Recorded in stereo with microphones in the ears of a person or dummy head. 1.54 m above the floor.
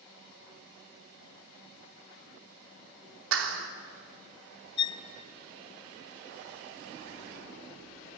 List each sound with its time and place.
3.3 s a clap: 80° right, 3.5 m
4.8 s a violin: 20° left (ahead or behind), 1.8 m